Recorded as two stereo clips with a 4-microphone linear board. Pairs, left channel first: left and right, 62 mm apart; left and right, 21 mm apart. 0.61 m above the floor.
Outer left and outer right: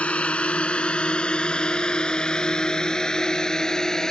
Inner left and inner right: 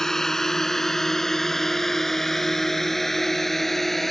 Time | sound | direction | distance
0.0 | a drone | 20° left (ahead or behind) | ?